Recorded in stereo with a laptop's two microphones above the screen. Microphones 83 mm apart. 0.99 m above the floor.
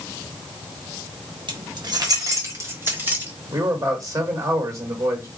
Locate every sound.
1.5 s keys jangling: 70° right (ahead or behind), 1.2 m; by 3.3 s 20° right (ahead or behind), 2 m
3.5 s a man speaking: 40° right (ahead or behind), 2.5 m